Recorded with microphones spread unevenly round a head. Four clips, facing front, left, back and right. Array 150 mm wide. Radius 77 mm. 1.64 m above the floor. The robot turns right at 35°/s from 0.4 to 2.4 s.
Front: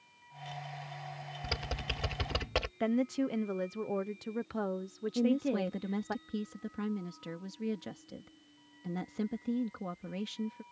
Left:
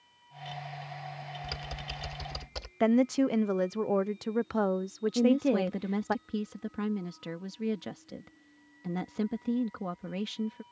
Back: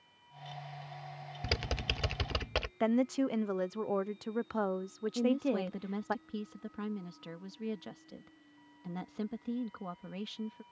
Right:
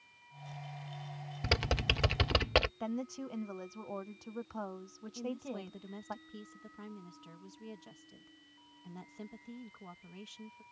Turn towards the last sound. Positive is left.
turn(degrees=65)